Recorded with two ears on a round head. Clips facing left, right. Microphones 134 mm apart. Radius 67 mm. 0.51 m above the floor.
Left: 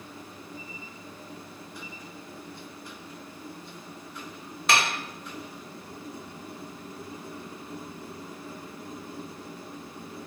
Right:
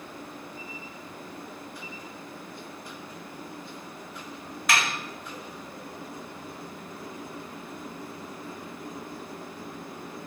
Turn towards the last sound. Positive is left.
turn(degrees=25)  # may be behind; listen again after turning